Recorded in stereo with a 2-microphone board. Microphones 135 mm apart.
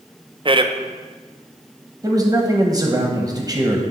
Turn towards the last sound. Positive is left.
turn(degrees=-25)  # may be behind; listen again after turning